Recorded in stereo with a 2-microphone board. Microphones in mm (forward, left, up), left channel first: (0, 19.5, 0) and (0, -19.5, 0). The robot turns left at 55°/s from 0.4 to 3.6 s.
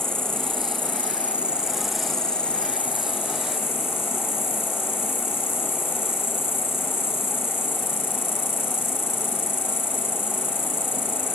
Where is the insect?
95° right, 1.3 m; by 11.4 s 90° left, 1.3 m.